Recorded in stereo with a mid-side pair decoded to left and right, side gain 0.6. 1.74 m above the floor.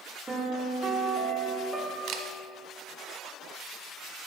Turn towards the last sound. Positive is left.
turn(degrees=-60)